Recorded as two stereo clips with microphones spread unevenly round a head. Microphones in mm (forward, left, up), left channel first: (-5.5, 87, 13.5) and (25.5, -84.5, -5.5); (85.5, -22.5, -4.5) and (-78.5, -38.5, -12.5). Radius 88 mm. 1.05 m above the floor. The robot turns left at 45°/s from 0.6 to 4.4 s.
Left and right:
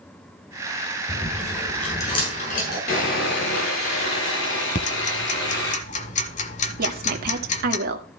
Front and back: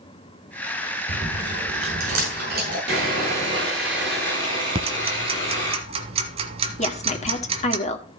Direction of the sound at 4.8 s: 135° left.